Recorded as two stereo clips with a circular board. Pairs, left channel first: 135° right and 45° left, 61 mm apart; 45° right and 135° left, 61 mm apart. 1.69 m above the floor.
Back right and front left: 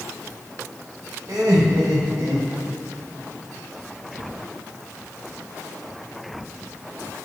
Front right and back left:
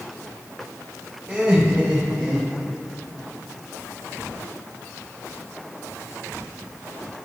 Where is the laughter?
55° left, 1.2 m.